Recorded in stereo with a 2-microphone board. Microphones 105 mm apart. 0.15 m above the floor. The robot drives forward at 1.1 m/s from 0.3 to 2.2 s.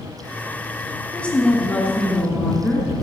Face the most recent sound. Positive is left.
turn(degrees=10)  # may be behind; listen again after turning